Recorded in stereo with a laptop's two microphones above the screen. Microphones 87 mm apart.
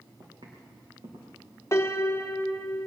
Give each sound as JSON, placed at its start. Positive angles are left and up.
{"t": 0.2, "sound": "footsteps", "side_deg": -60, "distance_m": 4.0}
{"t": 1.7, "sound": "a piano", "side_deg": 35, "distance_m": 0.9}